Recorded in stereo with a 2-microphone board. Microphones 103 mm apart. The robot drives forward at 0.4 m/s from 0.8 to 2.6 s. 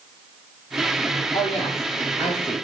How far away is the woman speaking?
About 7 m.